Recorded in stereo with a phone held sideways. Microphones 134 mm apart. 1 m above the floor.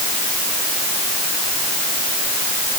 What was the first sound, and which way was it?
Only background noise.